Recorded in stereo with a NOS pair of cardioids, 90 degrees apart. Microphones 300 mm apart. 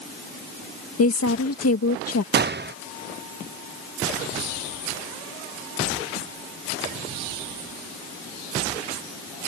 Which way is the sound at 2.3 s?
35° right.